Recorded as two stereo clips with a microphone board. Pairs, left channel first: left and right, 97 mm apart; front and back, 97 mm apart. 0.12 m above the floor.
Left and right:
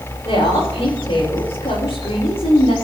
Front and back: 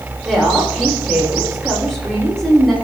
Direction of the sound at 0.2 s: 85° left.